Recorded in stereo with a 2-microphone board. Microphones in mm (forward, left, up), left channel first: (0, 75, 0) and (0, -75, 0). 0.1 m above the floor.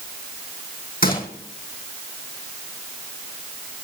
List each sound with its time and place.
1.0 s a gunshot: 75° left (ahead or behind), 4 m